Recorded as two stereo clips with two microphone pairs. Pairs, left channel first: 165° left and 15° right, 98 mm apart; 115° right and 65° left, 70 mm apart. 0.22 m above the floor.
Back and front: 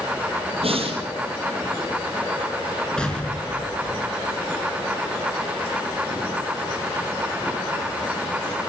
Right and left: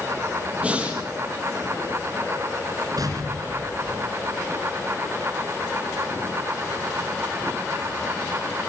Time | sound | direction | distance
0.6 | breathing | 10° right | 5 m
3.0 | an explosion | 85° left | 3 m